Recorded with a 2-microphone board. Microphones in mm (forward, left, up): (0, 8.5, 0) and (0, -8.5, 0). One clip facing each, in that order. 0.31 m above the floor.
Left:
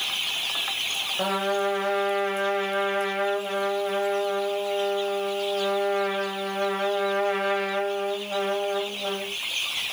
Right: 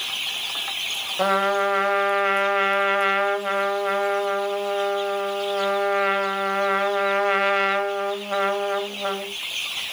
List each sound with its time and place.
1.2 s a trumpet: 40° right (ahead or behind), 2.0 m